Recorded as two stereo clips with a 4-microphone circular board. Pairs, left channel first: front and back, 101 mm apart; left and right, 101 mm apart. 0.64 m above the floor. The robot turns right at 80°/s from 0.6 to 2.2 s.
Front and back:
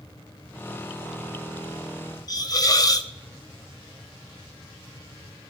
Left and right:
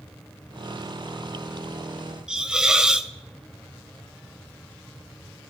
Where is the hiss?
15° right, 0.7 m.